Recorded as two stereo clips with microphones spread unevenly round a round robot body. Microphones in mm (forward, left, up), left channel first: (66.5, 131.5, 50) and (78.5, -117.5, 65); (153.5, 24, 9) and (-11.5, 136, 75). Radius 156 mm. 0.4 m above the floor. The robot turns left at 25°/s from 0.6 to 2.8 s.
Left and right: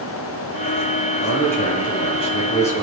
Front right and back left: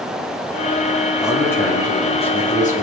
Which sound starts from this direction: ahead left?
A man speaking, at 1.2 s.